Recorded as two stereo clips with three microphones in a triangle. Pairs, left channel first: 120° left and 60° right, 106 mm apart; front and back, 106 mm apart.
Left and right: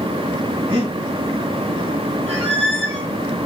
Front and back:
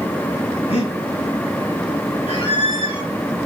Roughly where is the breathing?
Ahead right.